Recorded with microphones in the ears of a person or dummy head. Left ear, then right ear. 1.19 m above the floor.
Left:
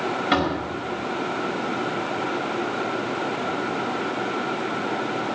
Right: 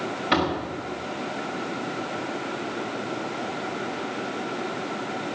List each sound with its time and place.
0.3 s a door slam: 10° left (ahead or behind), 5.5 m